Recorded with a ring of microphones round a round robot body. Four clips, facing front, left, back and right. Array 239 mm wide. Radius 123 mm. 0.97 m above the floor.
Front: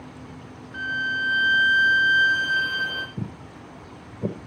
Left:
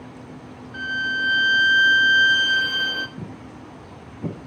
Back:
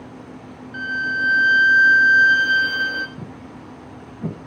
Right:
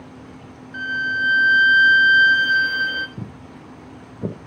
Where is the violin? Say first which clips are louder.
Right 2 dB, back 3 dB; 155° right, 1.8 m.